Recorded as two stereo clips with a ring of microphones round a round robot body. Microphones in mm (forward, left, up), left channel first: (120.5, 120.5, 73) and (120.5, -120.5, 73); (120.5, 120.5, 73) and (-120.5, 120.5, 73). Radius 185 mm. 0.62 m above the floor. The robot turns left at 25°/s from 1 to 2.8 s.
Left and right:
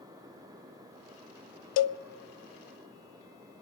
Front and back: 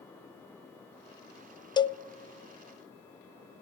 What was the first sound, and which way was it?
A cowbell, 75° left.